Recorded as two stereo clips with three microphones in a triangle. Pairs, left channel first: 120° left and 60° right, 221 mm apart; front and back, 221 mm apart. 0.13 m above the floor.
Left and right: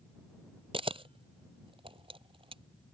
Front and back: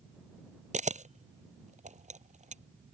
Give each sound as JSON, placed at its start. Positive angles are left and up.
{"t": 0.7, "sound": "a camera shutter", "azimuth_deg": -125}